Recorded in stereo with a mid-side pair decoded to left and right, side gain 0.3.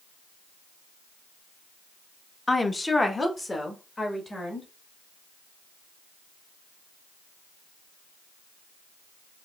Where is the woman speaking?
30° left, 0.6 m; by 4.7 s 35° left, 1.8 m.